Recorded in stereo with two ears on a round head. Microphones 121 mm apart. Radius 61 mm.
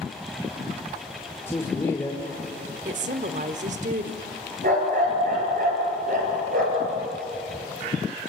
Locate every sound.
1.5 s a man speaking: 20° left (ahead or behind), 2 m
2.9 s a woman speaking: 60° right (ahead or behind), 1.3 m
4.6 s a dog barking: 70° right (ahead or behind), 5 m